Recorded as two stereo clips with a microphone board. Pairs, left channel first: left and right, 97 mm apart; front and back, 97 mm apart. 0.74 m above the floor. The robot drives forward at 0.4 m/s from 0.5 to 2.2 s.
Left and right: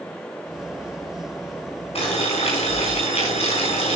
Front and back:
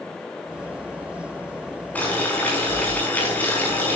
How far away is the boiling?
About 5.5 m.